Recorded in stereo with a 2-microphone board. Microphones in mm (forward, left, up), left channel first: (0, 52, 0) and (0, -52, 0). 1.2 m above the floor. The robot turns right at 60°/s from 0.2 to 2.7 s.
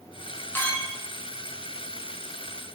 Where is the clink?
20° left (ahead or behind), 0.6 m; by 1.0 s centre (ahead or behind), 0.6 m.